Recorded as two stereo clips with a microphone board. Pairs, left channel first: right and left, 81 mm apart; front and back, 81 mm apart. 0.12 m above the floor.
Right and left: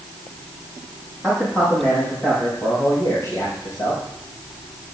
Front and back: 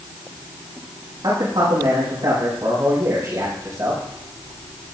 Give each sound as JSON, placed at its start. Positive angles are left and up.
{"t": 1.2, "sound": "a man speaking", "azimuth_deg": -160, "distance_m": 6.5}